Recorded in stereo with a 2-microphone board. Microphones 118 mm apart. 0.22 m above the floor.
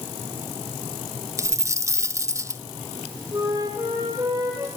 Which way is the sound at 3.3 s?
30° right (ahead or behind).